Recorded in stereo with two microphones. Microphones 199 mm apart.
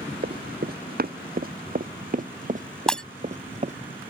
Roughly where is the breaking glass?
Centre.